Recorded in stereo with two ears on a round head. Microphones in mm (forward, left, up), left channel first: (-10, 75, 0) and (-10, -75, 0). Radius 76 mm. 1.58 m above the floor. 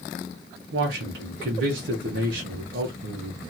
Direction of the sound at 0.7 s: 85° right.